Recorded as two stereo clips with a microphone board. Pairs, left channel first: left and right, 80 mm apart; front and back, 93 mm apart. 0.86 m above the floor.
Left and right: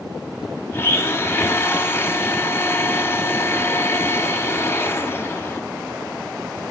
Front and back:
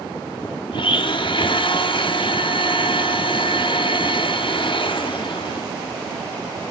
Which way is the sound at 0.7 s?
30° left.